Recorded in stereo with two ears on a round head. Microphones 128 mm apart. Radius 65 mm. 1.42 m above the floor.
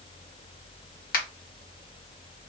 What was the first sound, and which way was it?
A finger snap, 70° left (ahead or behind).